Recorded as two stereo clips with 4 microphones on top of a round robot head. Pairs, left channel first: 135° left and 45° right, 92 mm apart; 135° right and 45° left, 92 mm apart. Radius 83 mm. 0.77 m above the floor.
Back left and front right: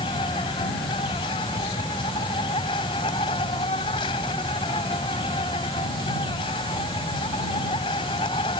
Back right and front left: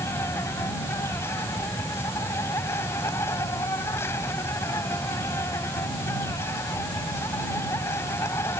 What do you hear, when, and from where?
0.0 s an insect: 165° left